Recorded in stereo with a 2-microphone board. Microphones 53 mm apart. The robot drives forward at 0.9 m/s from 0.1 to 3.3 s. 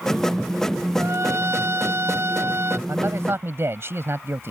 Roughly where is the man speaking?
Right.